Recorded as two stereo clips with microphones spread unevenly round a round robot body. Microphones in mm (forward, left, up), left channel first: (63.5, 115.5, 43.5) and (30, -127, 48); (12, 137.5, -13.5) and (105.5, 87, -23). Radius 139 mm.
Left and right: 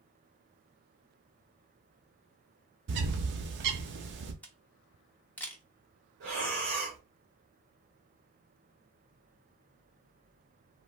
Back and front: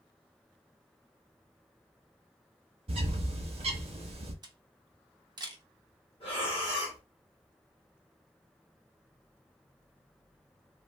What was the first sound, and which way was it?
A bird, 60° right.